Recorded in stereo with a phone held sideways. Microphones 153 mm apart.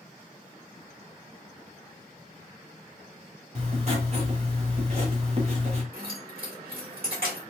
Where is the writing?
50° right (ahead or behind), 1.1 m.